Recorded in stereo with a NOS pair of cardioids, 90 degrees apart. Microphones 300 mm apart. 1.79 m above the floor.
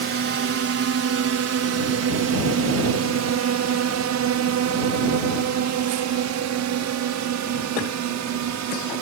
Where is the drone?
50° right; by 9.0 s 75° right.